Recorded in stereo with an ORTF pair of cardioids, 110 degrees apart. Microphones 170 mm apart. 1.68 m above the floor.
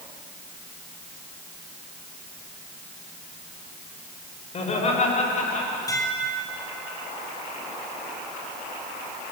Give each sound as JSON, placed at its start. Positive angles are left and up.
{"t": 4.5, "sound": "laughter", "azimuth_deg": 40, "distance_m": 7.5}
{"t": 5.9, "sound": "dishes clattering", "azimuth_deg": 20, "distance_m": 6.5}